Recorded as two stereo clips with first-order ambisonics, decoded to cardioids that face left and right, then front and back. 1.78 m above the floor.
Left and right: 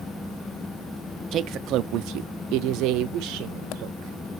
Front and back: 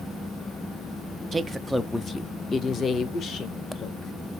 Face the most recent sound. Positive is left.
turn(degrees=-60)